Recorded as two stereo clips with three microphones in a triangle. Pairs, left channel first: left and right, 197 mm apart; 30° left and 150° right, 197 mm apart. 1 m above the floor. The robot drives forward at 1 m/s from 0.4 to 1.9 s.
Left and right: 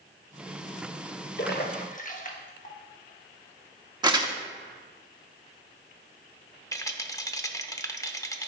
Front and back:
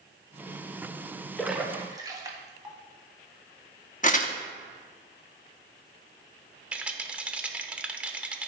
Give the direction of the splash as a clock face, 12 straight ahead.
8 o'clock.